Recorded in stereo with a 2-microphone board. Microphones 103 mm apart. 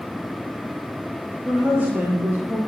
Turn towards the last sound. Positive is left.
turn(degrees=-30)  # may be behind; listen again after turning